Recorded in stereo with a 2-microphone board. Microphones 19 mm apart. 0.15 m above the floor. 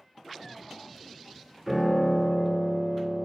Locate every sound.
1.7 s a piano: 20° right (ahead or behind), 1.5 m